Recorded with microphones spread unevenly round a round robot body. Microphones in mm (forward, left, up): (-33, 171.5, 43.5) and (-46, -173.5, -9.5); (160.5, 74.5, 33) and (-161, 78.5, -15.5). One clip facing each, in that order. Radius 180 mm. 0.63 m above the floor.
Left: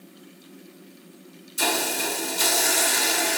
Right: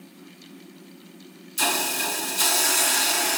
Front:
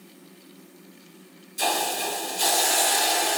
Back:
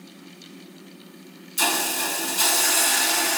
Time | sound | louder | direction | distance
1.6 | a hiss | left 3 dB, even | 165° right | 1.4 m